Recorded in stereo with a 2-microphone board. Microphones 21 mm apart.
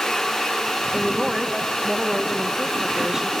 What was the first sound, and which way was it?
A woman speaking, 15° right (ahead or behind).